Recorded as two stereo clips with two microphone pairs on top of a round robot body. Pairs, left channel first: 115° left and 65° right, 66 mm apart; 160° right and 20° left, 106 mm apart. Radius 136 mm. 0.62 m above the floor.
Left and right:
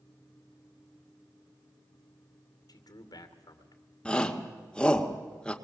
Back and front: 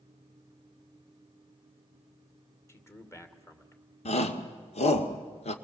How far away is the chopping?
No chopping in this recording.